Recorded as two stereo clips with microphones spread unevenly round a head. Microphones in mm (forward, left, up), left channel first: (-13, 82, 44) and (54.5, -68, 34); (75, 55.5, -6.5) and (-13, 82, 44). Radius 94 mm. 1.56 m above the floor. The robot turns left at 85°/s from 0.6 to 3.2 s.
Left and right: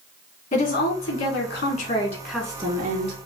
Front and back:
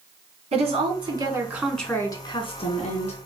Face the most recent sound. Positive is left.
turn(degrees=-55)